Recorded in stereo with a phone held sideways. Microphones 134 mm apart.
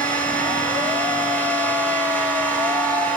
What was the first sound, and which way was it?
A machine running, 10° left (ahead or behind).